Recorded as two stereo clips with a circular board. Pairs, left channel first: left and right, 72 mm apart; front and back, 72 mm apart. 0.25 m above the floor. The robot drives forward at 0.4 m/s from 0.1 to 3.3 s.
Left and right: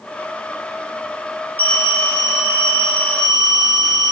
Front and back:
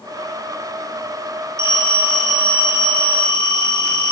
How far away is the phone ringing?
About 1.4 m.